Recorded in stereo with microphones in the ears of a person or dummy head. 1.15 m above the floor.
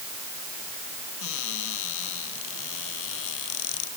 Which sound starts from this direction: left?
A cupboard door, at 1.2 s.